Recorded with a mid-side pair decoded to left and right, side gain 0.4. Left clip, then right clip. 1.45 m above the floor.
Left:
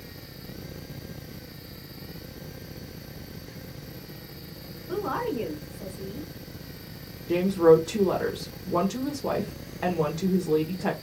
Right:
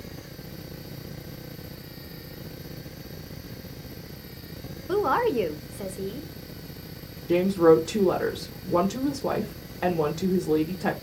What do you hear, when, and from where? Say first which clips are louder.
4.9 s a woman speaking: right 6 dB; 60° right, 0.7 m
7.3 s a woman speaking: even; 15° right, 1.0 m